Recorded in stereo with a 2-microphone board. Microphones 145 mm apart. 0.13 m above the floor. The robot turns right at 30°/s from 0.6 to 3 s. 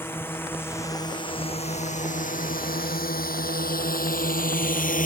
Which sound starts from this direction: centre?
A drone, at 0.0 s.